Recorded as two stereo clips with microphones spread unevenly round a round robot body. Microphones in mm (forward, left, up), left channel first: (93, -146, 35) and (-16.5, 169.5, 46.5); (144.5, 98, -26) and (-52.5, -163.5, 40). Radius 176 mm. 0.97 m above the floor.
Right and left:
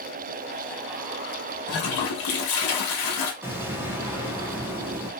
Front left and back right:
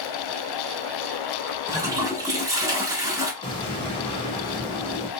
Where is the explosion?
30° left, 0.9 m.